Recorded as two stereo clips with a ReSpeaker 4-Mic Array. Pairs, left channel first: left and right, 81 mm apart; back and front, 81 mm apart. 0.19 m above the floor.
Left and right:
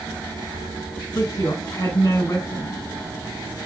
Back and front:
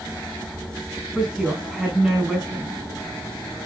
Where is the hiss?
I don't hear a hiss.